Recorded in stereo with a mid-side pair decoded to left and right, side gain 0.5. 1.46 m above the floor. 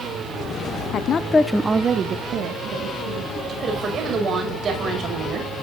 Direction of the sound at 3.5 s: 50° right.